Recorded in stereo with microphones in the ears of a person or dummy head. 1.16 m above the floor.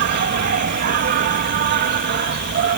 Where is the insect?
60° right (ahead or behind).